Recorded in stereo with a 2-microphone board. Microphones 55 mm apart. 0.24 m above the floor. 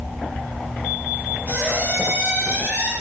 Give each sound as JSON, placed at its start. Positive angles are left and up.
{"t": 1.5, "sound": "a squeak", "side_deg": -25, "distance_m": 2.5}